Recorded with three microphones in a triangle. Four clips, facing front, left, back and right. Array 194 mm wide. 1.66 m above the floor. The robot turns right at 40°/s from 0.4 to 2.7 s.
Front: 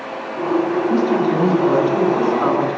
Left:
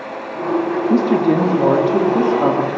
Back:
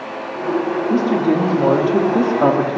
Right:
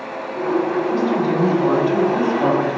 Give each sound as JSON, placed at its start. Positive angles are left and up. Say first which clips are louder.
{"t": 0.9, "sound": "a woman speaking", "louder": "left 8 dB, back 2 dB", "azimuth_deg": 105, "distance_m": 3.0}